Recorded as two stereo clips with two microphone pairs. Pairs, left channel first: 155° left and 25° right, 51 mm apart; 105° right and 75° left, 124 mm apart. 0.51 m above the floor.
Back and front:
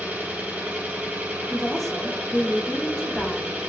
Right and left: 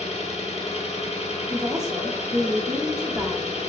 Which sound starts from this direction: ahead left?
A woman speaking, at 1.5 s.